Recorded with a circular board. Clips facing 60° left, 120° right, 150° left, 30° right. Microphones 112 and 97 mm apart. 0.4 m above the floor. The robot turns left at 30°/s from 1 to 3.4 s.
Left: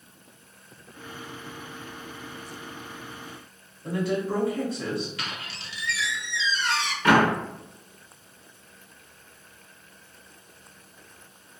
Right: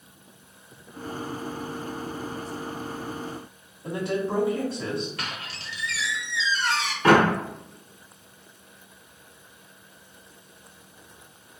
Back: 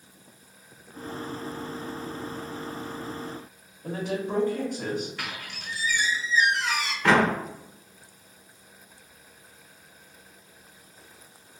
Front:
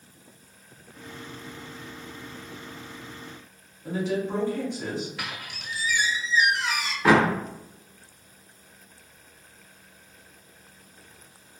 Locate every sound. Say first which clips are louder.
3.8 s a woman speaking: even, front 2 dB; 175° left, 1.3 m
5.2 s a squeak: right 1 dB, even; 115° right, 1.0 m
7.0 s a door slam: right 2 dB, front 2 dB; 100° right, 0.6 m